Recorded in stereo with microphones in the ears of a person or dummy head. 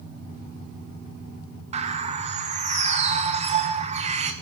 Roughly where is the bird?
Right.